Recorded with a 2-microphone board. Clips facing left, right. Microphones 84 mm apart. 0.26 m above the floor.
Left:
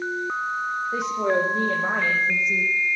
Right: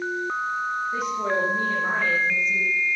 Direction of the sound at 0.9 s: 80° left.